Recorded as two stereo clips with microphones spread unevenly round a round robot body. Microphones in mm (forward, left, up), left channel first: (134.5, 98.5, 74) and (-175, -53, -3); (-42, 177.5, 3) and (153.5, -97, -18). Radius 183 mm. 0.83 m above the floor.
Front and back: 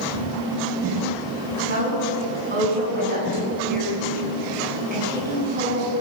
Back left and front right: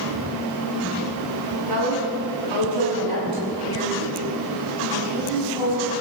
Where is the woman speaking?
85° right, 6.5 m.